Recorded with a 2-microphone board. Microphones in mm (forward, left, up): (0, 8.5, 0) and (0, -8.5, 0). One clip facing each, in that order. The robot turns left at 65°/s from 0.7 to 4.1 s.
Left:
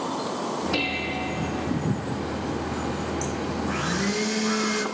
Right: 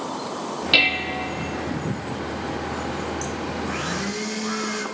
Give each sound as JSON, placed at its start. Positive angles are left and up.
{"t": 0.7, "sound": "dishes clattering", "azimuth_deg": -110, "distance_m": 1.1}
{"t": 3.6, "sound": "a blender", "side_deg": -15, "distance_m": 0.8}